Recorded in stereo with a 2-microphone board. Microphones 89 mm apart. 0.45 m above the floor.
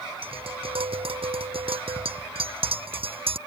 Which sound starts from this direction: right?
Tapping, at 0.2 s.